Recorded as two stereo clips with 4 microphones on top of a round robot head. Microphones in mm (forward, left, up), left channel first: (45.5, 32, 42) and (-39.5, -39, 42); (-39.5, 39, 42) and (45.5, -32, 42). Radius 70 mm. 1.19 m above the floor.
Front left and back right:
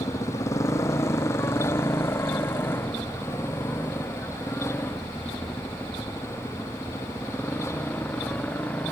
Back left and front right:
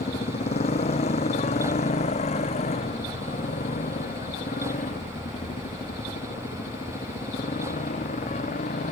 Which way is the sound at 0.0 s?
105° left.